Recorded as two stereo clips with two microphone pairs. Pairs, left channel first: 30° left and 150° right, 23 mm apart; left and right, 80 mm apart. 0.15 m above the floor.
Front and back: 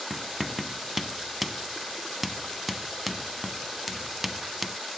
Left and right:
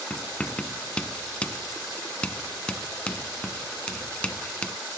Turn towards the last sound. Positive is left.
turn(degrees=135)